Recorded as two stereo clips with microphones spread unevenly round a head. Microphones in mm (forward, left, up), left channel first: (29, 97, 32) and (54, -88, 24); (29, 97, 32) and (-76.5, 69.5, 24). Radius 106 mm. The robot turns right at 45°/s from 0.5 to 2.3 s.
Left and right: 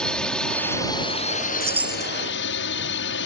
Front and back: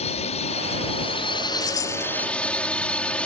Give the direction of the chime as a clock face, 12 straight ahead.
12 o'clock.